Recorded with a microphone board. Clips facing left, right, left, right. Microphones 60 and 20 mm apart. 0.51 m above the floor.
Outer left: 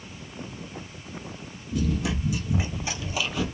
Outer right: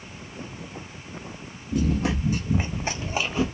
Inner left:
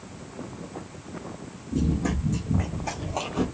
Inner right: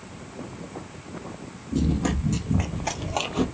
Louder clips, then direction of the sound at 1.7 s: Outer right 3 dB, inner right 1 dB; 40° right (ahead or behind).